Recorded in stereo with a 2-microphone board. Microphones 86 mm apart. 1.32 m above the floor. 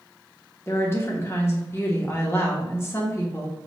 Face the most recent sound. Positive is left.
turn(degrees=30)  # may be behind; listen again after turning